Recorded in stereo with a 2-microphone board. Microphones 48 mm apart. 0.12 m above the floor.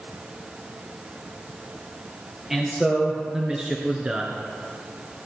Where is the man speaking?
10° right (ahead or behind), 2.5 m; by 4.4 s 25° right (ahead or behind), 1.5 m.